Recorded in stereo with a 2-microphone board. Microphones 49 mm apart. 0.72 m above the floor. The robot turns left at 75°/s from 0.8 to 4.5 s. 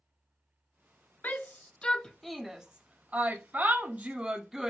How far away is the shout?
About 0.5 m.